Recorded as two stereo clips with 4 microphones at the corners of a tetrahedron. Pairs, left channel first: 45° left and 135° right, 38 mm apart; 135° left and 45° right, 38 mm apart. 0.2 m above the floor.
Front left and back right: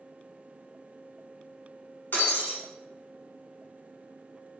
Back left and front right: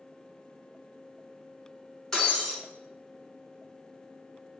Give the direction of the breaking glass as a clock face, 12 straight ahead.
10 o'clock.